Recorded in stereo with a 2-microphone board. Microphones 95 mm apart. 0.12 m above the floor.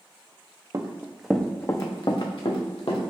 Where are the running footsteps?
35° right (ahead or behind), 0.6 m; by 3.0 s 70° left (ahead or behind), 1.2 m.